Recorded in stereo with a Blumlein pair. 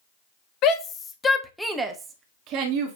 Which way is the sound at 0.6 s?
40° left.